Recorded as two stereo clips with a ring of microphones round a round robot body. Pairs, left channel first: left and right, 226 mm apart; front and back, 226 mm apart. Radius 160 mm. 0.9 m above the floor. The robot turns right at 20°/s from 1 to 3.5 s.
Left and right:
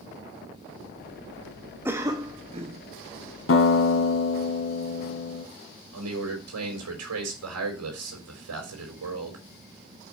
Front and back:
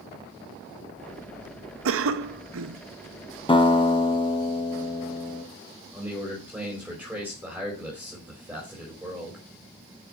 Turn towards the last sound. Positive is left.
turn(degrees=-95)